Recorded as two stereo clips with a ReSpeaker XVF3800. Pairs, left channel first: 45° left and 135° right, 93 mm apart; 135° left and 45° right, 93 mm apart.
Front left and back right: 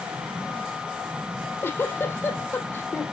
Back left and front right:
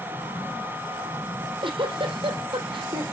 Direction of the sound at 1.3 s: 20° right.